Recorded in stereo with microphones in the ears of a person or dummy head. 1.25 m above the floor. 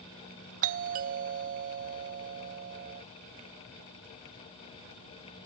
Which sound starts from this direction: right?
A doorbell, at 0.6 s.